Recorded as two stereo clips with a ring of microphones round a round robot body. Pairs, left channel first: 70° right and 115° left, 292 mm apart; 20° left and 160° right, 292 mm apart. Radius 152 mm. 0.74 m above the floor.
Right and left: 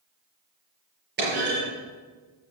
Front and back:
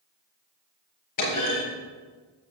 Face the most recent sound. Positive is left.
turn(degrees=55)